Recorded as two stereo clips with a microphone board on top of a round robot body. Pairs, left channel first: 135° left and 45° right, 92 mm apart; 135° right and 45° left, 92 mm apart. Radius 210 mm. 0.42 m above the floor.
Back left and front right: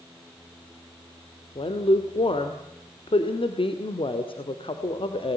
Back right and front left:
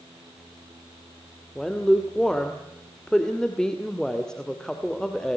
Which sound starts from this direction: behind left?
A woman speaking, at 1.6 s.